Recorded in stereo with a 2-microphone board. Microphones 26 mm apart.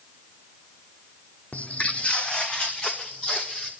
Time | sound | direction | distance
1.5 | footsteps | 70° left (ahead or behind) | 1.4 m